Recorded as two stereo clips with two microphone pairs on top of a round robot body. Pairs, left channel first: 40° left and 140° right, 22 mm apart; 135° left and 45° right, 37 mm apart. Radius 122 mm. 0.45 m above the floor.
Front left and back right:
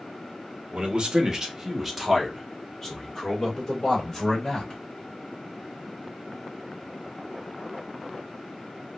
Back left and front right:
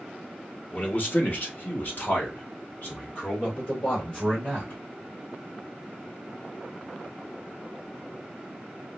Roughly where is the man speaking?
Behind.